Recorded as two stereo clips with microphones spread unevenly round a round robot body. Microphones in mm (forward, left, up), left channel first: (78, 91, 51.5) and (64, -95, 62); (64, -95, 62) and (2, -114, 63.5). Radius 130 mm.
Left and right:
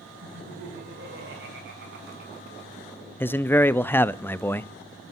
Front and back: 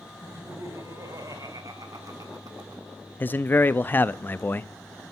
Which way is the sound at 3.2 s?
20° left.